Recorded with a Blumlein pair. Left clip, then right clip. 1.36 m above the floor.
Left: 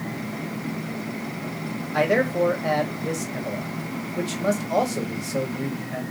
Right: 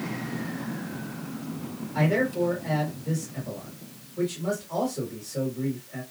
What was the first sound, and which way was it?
A man speaking, 35° left.